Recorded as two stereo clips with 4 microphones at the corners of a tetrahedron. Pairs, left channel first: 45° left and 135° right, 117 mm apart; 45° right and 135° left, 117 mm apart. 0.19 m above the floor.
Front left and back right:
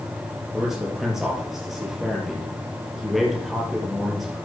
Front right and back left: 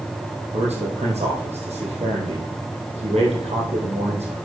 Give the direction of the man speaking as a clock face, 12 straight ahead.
7 o'clock.